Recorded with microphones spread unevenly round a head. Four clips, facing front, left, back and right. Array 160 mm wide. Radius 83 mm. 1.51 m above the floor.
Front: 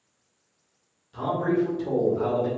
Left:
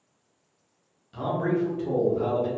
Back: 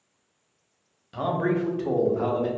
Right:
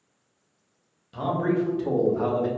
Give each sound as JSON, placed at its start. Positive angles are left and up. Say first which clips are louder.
{"t": 1.1, "sound": "a man speaking", "louder": "right 2 dB, front 1 dB", "azimuth_deg": -145, "distance_m": 1.2}